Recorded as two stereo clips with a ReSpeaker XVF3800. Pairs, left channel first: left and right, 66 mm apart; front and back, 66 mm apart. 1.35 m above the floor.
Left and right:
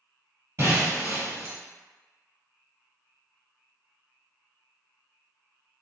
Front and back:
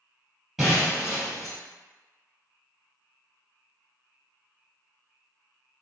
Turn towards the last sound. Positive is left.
turn(degrees=-100)